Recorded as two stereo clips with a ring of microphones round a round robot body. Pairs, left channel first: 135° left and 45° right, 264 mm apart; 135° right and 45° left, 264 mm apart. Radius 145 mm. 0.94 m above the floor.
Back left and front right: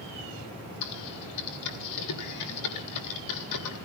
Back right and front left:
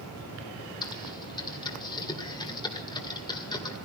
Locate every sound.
0.8 s typing on a keyboard: 150° left, 1.4 m